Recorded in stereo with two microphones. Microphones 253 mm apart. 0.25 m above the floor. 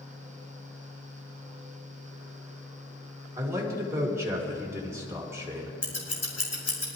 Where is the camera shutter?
No camera shutter in this recording.